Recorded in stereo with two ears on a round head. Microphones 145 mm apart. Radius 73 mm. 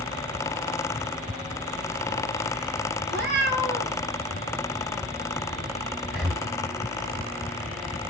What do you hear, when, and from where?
3.1 s a cat meowing: 70° right (ahead or behind), 2.0 m
6.1 s breathing: centre (ahead or behind), 1.2 m